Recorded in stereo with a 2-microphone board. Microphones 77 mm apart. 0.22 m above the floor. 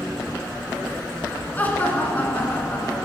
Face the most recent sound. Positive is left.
turn(degrees=20)  # may be behind; listen again after turning